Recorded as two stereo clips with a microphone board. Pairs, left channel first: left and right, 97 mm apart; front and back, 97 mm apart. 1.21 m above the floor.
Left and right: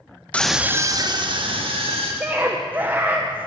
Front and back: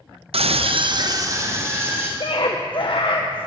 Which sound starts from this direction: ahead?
A scream, at 2.2 s.